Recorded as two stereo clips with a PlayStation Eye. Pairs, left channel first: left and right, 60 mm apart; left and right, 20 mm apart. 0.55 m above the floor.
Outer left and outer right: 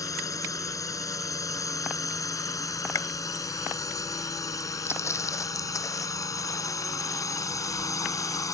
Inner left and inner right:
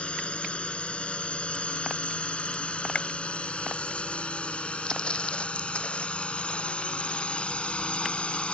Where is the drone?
80° left; by 8.5 s 75° left (ahead or behind).